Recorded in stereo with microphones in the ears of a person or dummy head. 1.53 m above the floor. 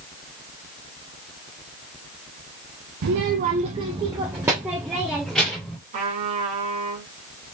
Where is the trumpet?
35° right (ahead or behind), 1.8 m.